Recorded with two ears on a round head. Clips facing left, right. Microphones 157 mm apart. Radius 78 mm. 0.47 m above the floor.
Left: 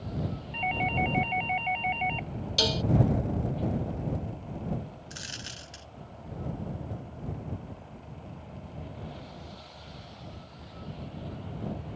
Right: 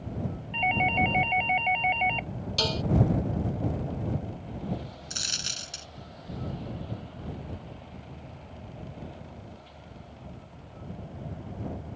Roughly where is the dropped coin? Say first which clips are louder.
Right 1 dB; right.